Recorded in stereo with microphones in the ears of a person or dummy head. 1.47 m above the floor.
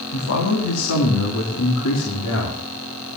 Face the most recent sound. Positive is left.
turn(degrees=80)